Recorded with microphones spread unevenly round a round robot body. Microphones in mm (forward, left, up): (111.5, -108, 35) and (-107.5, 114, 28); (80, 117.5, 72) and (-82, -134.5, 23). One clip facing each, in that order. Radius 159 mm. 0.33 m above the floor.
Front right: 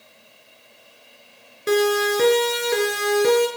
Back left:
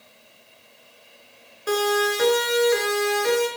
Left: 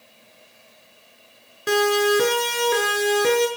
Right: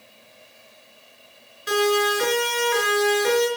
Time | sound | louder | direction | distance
1.7 | a siren | front right 4 dB, left 2 dB | 20° left | 6.5 m